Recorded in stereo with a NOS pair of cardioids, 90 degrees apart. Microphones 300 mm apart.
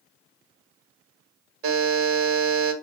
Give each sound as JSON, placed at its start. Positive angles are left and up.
{"t": 1.6, "sound": "a buzzer", "azimuth_deg": -70, "distance_m": 1.1}